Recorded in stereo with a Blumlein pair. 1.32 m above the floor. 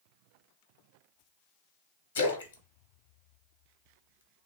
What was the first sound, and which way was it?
A splash, 65° left.